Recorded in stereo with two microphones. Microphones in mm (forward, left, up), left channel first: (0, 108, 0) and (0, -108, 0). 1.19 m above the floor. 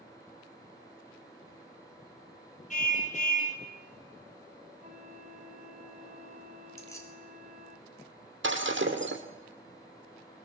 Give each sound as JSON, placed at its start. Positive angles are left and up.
{"t": 2.7, "sound": "a car horn", "side_deg": 35, "distance_m": 4.0}
{"t": 4.8, "sound": "a flute", "side_deg": -30, "distance_m": 5.0}
{"t": 6.8, "sound": "keys jangling", "side_deg": 15, "distance_m": 3.0}
{"t": 8.4, "sound": "breaking glass", "side_deg": -65, "distance_m": 2.5}